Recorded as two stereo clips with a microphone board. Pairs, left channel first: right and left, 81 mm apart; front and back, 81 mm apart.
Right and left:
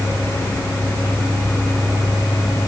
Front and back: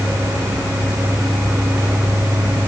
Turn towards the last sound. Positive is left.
No sound to turn to.